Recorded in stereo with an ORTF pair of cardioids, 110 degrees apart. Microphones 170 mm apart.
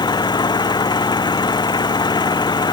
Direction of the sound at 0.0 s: 25° left.